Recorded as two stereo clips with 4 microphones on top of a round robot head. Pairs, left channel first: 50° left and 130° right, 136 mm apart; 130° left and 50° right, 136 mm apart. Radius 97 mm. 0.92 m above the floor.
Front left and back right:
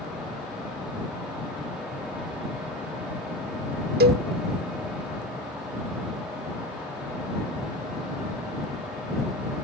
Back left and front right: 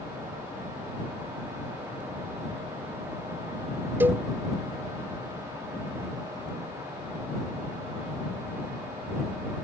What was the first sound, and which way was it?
A cowbell, 125° right.